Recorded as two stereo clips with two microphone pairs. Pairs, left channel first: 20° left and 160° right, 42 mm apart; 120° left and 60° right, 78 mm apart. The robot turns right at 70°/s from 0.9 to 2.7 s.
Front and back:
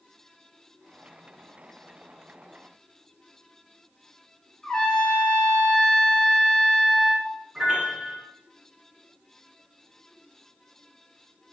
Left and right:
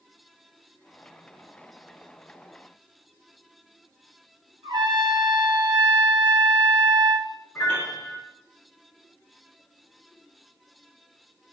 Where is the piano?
145° left, 1.1 m.